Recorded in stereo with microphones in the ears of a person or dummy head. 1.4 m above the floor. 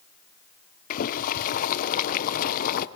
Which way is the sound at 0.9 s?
45° left (ahead or behind).